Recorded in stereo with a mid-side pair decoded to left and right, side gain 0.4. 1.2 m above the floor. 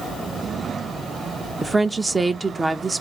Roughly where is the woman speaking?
Ahead right.